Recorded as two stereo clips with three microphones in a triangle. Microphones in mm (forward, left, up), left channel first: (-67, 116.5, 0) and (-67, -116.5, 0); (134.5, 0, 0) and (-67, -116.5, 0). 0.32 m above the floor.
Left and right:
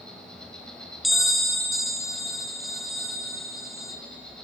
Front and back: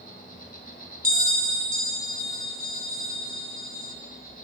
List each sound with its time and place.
0.0 s an insect: 5° left, 2.5 m
1.0 s a bell: straight behind, 1.5 m